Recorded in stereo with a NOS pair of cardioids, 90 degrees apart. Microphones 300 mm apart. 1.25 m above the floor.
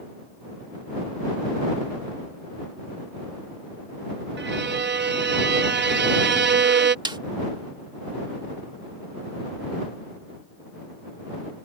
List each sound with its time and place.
4.4 s a violin: 40° right
7.0 s a snare drum: 15° right